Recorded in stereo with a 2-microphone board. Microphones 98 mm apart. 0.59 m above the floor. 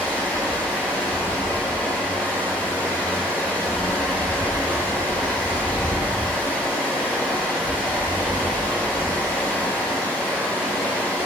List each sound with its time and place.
0.0 s running water: 15° left (ahead or behind), 3 m